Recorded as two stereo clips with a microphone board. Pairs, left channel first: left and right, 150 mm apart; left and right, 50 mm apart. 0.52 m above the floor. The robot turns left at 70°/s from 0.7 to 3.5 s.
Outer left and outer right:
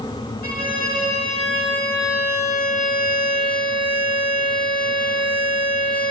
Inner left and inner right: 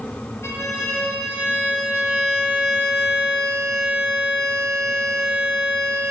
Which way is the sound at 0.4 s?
100° left.